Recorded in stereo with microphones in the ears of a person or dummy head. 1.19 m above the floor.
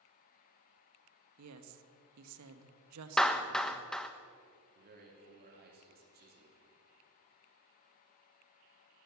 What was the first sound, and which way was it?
A woman speaking, 85° right.